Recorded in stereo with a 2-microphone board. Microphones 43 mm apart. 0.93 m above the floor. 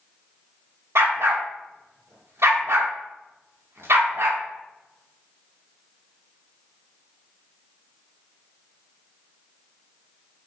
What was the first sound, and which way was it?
A dog barking, 70° right (ahead or behind).